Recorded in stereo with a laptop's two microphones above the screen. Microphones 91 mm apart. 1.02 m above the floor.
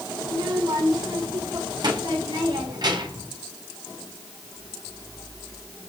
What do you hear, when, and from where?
0.2 s a child speaking: 50° right (ahead or behind), 9.5 m